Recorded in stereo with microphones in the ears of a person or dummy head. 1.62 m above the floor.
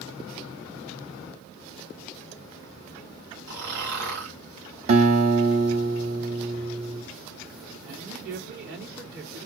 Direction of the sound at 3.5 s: 65° right (ahead or behind).